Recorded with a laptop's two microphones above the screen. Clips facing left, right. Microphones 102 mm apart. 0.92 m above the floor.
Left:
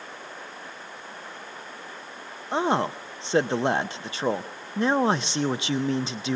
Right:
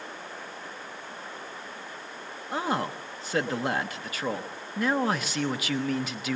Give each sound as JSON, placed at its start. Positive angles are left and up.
{"t": 2.5, "sound": "a man speaking", "side_deg": 25, "distance_m": 0.8}